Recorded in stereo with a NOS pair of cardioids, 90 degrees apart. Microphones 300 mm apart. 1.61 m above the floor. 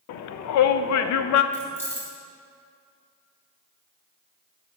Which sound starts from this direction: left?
A shout, at 0.1 s.